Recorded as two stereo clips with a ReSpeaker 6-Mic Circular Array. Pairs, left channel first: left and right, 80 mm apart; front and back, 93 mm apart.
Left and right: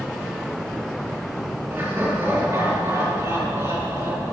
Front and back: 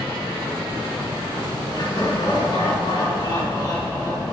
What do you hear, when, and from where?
1.7 s laughter: 30° right, 4 m; by 4.3 s 50° right, 4.5 m